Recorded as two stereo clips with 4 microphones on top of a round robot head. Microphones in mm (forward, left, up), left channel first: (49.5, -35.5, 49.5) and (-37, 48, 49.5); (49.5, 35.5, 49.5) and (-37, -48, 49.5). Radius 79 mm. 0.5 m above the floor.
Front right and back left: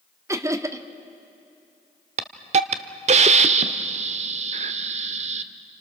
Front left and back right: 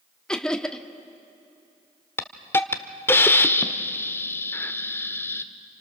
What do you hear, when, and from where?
0.3 s laughter: 120° left, 1.1 m
2.2 s a hiss: 115° left, 0.9 m